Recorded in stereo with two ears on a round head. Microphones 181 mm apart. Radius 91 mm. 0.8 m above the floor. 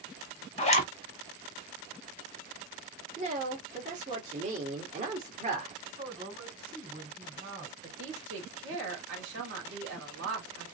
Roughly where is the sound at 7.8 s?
Right.